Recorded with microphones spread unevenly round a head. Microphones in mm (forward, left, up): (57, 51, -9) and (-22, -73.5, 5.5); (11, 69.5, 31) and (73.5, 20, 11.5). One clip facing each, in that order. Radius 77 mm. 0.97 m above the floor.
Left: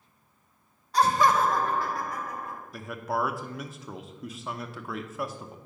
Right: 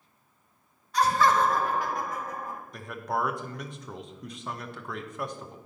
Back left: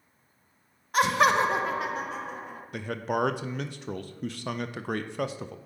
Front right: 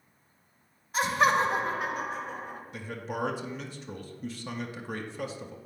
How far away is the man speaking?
About 0.6 m.